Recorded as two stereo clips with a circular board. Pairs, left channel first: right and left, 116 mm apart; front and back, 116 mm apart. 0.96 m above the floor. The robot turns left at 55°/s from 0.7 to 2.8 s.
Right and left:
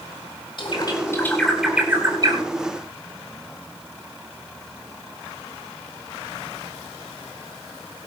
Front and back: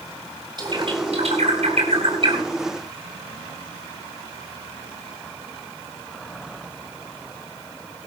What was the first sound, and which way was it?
A bird, 135° right.